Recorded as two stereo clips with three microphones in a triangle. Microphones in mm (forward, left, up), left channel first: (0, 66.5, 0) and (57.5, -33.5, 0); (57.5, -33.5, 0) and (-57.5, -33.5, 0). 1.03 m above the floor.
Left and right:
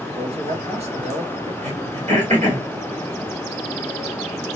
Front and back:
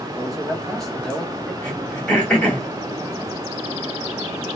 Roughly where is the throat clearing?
Right.